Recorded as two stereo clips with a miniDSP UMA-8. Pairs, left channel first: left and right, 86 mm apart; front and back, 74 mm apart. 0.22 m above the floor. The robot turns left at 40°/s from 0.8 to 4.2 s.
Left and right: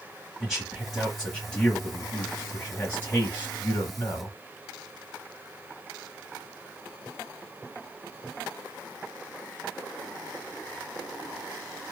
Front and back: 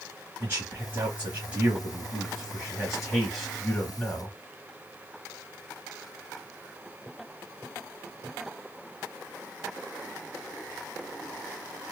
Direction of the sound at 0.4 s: 175° left.